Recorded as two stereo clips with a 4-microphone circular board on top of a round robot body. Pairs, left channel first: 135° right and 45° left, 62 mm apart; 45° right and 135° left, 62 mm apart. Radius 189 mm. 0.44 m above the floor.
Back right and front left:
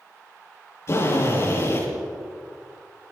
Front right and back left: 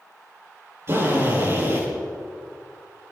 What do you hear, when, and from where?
0.9 s a drill: straight behind, 9 m